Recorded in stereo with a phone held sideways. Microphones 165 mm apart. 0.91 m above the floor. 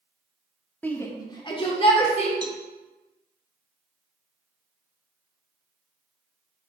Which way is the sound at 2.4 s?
25° right (ahead or behind).